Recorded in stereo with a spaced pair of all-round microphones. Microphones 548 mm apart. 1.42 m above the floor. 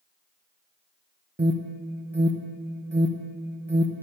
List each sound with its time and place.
1.4 s an alarm: 20° right (ahead or behind), 0.6 m